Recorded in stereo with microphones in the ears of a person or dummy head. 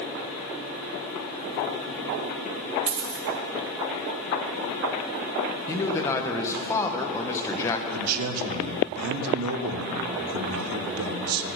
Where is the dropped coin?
35° right (ahead or behind), 1.0 m.